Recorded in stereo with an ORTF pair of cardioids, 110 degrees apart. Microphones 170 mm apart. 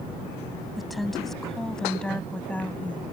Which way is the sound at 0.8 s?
Straight ahead.